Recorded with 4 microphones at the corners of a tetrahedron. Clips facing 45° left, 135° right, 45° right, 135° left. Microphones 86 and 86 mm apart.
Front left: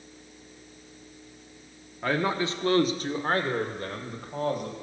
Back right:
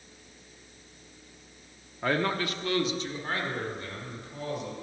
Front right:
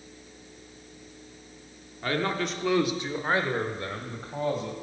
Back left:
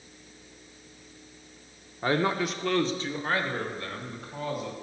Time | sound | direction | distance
2.0 | a man speaking | 145° left | 0.8 m